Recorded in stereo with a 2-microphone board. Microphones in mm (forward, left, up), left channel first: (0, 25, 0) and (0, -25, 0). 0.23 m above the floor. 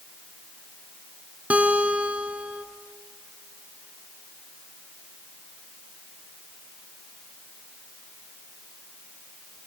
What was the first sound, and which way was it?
A guitar, 30° right (ahead or behind).